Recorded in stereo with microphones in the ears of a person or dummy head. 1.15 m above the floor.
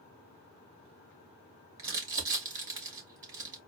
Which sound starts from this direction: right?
Crumpling, at 1.8 s.